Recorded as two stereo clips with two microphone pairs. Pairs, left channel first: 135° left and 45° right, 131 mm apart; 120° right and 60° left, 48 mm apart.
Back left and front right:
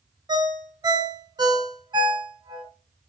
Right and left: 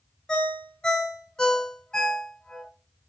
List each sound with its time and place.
0.3 s a ringtone: 70° right, 0.5 m